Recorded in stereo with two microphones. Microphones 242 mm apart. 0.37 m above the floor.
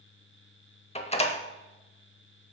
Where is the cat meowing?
I don't hear a cat meowing.